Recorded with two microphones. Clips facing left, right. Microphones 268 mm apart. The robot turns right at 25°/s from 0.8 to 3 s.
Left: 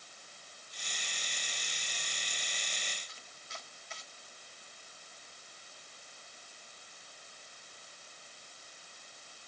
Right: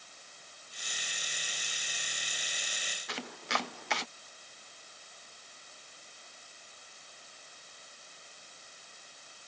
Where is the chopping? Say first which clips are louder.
Right 16 dB; 75° right (ahead or behind).